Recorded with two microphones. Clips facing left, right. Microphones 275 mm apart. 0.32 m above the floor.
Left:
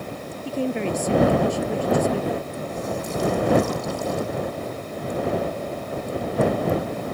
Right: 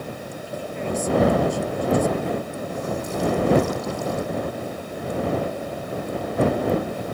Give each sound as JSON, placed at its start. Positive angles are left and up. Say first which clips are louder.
{"t": 0.5, "sound": "a woman speaking", "louder": "left 6 dB", "side_deg": 75}